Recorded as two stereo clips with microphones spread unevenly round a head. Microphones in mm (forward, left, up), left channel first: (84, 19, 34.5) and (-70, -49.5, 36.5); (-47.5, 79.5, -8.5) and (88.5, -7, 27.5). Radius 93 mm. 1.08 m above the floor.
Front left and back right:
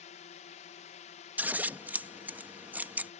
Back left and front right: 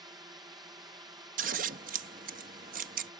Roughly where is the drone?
Ahead left.